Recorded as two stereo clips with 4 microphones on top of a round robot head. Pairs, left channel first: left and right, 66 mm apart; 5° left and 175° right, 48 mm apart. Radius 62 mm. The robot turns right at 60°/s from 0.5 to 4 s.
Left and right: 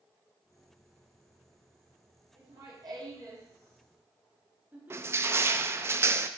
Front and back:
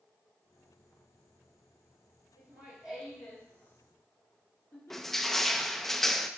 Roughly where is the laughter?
Behind right.